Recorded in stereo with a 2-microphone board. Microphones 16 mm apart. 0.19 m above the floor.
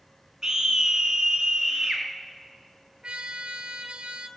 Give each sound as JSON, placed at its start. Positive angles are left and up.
{"t": 0.4, "sound": "a scream", "side_deg": -35, "distance_m": 2.0}
{"t": 3.0, "sound": "a trumpet", "side_deg": -70, "distance_m": 1.0}